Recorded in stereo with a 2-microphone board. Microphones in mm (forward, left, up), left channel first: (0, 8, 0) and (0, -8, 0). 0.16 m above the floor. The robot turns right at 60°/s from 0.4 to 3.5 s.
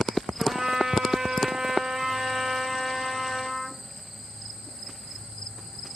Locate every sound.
0.4 s a trumpet: 120° right, 6 m; by 3.8 s 65° left, 6 m